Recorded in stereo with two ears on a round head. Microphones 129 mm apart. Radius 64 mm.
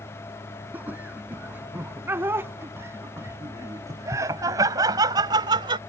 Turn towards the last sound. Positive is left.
turn(degrees=-35)  # may be behind; listen again after turning